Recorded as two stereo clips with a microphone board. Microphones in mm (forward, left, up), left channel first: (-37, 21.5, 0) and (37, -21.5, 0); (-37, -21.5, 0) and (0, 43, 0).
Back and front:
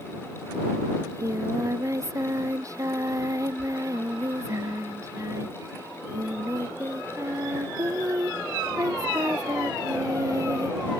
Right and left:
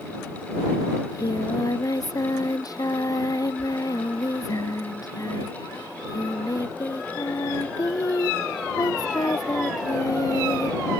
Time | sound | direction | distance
1.0 | singing | 85° right | ?